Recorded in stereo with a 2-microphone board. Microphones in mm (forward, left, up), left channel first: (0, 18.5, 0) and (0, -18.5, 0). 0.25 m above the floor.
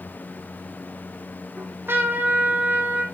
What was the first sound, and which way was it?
A trumpet, 80° right.